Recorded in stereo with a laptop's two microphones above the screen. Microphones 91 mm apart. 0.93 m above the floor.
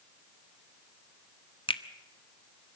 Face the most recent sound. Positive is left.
turn(degrees=70)  # may be behind; listen again after turning